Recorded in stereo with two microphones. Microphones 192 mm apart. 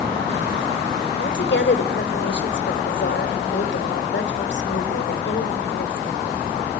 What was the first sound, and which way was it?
A woman speaking, 70° left (ahead or behind).